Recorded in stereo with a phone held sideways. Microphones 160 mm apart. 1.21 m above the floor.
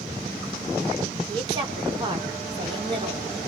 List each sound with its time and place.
1.3 s a woman speaking: 30° right (ahead or behind), 3 m